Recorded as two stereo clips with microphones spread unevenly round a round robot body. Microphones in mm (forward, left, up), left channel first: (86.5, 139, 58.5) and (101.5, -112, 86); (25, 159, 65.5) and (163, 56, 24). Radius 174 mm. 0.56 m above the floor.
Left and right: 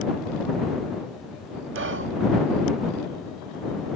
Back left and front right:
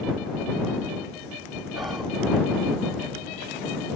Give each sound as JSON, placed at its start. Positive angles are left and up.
{"t": 1.8, "sound": "whispering", "azimuth_deg": -115}